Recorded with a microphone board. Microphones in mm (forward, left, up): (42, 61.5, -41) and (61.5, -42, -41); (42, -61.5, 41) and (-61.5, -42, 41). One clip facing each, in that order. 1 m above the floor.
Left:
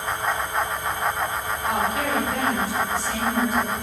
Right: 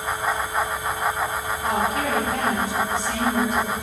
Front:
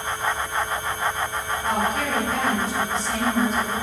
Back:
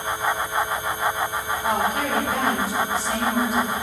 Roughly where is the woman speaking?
Right.